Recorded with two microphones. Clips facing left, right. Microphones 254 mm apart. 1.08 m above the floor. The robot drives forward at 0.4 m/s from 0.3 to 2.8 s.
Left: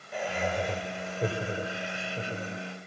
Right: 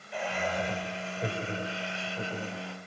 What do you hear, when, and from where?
0.1 s laughter: 45° left (ahead or behind), 5 m; by 2.8 s 55° left (ahead or behind), 4 m